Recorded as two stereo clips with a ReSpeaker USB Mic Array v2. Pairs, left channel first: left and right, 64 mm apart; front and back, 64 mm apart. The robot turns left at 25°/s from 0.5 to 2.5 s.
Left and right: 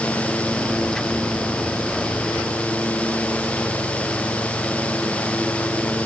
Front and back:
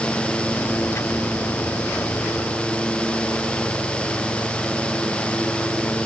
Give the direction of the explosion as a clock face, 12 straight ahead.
No explosion in this recording.